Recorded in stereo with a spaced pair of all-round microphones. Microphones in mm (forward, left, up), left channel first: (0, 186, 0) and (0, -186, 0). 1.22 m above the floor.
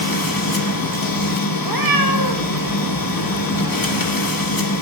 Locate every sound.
0.0 s a machine running: 65° left (ahead or behind), 1.0 m
1.6 s a cat meowing: 65° right (ahead or behind), 0.9 m